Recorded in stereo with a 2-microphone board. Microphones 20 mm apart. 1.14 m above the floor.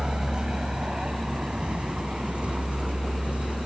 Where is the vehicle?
45° right (ahead or behind); by 3.7 s 80° right.